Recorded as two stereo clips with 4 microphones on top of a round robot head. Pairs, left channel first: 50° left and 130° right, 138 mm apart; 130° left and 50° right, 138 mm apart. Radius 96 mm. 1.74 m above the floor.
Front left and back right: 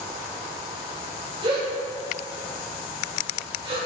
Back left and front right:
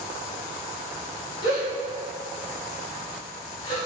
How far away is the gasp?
About 1.4 m.